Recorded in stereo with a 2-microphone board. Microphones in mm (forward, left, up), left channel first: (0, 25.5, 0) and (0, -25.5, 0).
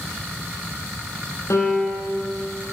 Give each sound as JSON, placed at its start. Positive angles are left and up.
{"t": 1.5, "sound": "a piano", "side_deg": 65, "distance_m": 4.5}